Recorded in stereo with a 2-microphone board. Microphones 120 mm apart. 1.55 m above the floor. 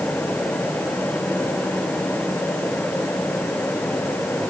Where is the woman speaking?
No woman speaking in this recording.